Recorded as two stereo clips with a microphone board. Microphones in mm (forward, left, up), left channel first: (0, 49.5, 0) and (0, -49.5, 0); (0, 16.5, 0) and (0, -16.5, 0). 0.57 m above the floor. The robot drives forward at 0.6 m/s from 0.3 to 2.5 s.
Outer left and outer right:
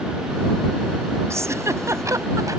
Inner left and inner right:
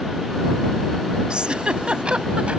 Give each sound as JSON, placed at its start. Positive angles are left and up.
{"t": 1.3, "sound": "a giggle", "side_deg": -30}